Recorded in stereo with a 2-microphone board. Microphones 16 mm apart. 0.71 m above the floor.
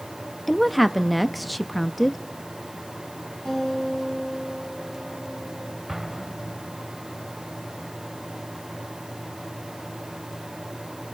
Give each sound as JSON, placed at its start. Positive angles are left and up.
{"t": 0.5, "sound": "a woman speaking", "side_deg": -5, "distance_m": 0.5}
{"t": 3.5, "sound": "a guitar", "side_deg": 50, "distance_m": 5.5}
{"t": 5.9, "sound": "an explosion", "side_deg": -30, "distance_m": 1.9}